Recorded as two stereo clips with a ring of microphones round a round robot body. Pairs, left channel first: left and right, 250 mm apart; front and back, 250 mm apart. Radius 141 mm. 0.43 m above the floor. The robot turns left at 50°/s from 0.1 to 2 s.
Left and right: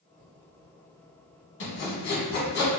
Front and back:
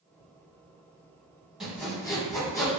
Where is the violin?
No violin in this recording.